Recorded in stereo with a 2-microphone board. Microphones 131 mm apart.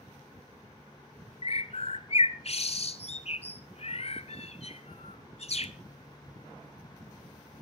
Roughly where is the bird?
Left.